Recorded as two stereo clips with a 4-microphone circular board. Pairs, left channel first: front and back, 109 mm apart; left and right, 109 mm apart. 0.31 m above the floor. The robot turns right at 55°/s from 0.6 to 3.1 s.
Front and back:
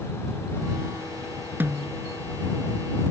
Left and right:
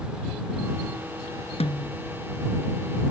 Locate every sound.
1.6 s a snare drum: 110° left; by 2.0 s 130° left